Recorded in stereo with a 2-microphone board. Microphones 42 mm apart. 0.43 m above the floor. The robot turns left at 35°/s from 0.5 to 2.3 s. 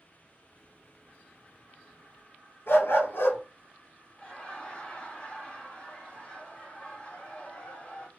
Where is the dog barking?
65° left (ahead or behind), 1.4 m.